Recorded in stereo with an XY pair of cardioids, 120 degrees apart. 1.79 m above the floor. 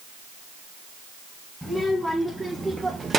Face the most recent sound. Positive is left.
turn(degrees=-35)